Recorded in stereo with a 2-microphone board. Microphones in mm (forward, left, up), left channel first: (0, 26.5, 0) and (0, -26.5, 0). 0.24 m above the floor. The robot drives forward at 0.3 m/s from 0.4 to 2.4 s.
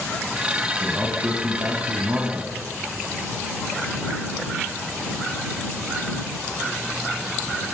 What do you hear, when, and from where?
0.8 s a man speaking: 30° right (ahead or behind), 2 m; by 2.5 s 35° right (ahead or behind), 1.9 m